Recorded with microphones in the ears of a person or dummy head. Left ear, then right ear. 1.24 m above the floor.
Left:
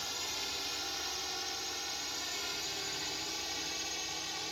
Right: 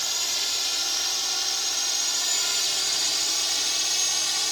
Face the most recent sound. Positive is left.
turn(degrees=-55)  # may be behind; listen again after turning